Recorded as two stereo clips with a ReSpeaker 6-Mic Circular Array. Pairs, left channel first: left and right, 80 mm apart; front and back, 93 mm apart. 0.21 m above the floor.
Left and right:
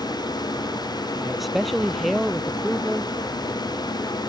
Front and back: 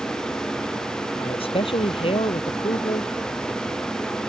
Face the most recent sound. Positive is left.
turn(degrees=5)